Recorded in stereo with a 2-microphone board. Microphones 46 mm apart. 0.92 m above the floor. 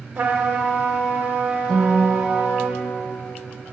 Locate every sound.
0.1 s a trumpet: 50° right (ahead or behind), 1.4 m
1.7 s a guitar: 5° left (ahead or behind), 1.6 m